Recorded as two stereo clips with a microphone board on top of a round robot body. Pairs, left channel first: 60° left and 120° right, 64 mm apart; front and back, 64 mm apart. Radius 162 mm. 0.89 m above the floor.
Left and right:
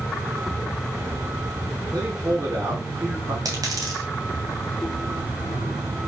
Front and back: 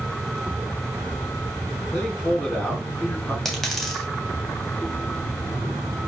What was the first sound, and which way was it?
A man speaking, 70° right.